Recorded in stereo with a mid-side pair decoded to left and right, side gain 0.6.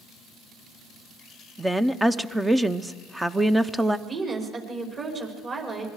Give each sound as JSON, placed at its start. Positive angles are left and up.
{"t": 1.6, "sound": "a woman speaking", "azimuth_deg": -10, "distance_m": 0.8}
{"t": 4.1, "sound": "a woman speaking", "azimuth_deg": -35, "distance_m": 5.5}